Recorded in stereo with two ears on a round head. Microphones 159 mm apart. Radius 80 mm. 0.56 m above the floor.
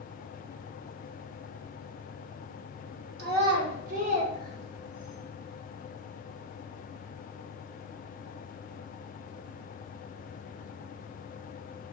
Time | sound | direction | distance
3.2 | a child speaking | 55° right (ahead or behind) | 1.0 m